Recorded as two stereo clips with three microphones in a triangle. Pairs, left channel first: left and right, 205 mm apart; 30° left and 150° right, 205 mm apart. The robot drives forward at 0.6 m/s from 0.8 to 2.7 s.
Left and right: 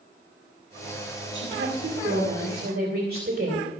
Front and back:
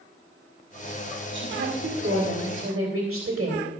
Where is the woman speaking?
120° right, 2.0 m; by 3.7 s 135° right, 2.5 m.